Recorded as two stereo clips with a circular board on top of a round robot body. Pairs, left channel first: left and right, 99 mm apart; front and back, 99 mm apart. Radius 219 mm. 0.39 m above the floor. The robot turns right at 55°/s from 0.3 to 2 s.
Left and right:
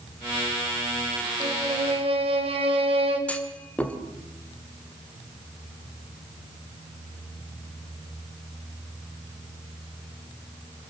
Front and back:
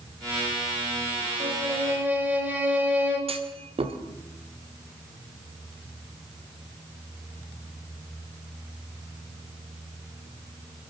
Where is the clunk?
165° left, 2 m.